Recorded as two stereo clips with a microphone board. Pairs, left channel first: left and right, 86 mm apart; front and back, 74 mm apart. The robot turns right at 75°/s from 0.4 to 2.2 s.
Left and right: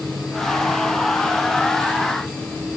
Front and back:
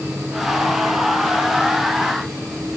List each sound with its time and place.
Only background noise.